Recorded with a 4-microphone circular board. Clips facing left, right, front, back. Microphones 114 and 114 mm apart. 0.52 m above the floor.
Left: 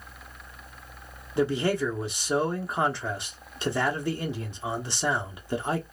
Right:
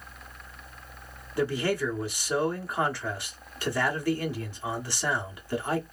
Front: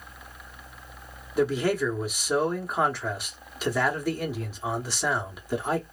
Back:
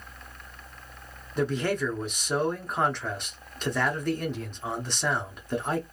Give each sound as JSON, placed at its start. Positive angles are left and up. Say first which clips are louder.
{"t": 1.4, "sound": "a man speaking", "louder": "left 2 dB, front 3 dB", "azimuth_deg": 70, "distance_m": 1.0}